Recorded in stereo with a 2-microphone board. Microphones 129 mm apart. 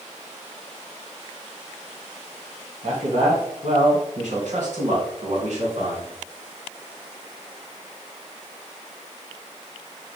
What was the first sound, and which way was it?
A man speaking, 60° right (ahead or behind).